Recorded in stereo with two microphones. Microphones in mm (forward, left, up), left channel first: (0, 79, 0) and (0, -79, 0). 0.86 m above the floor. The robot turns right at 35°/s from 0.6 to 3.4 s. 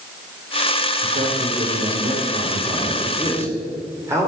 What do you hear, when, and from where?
1.0 s a man speaking: 100° right, 3 m; by 4.3 s 15° right, 3 m